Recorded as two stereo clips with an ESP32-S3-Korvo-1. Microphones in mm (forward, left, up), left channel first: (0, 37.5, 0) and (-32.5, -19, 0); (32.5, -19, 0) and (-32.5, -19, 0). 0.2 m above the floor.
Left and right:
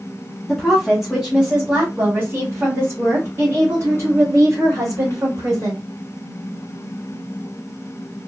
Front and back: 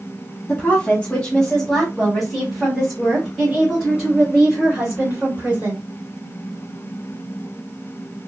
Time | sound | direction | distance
0.5 | a woman speaking | 20° right | 1.7 m